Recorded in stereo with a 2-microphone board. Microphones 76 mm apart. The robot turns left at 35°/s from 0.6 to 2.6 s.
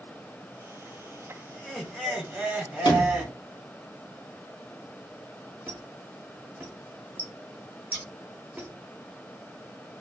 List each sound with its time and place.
1.5 s laughter: 10° left, 0.9 m; by 3.4 s 25° right, 0.9 m
2.9 s a sliding door: 70° left (ahead or behind), 0.9 m
5.7 s a squeak: 25° right (ahead or behind), 0.7 m
7.9 s scissors: 25° right (ahead or behind), 1.3 m